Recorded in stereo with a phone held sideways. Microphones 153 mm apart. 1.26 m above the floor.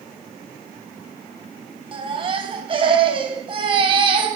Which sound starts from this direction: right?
A baby crying, at 1.9 s.